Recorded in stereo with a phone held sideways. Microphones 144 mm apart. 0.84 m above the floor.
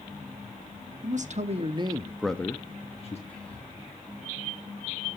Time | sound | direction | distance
1.0 | a man speaking | 60° right (ahead or behind) | 1.4 m
3.3 | whispering | 10° left (ahead or behind) | 9.5 m